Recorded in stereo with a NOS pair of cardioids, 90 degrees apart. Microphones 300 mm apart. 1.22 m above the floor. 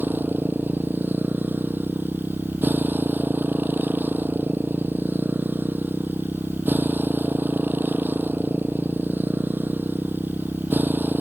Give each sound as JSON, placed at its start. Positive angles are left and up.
{"t": 0.0, "sound": "a motorcycle", "azimuth_deg": -5}